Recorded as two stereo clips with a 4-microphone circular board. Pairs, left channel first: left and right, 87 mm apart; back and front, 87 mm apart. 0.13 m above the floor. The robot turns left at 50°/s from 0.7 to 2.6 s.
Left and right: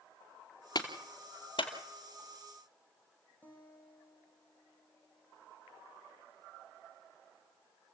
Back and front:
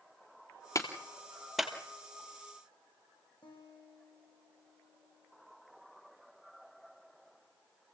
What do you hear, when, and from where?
0.8 s a clap: 130° left, 2.5 m; by 1.7 s 80° left, 2.5 m
3.4 s a guitar: 160° left, 7 m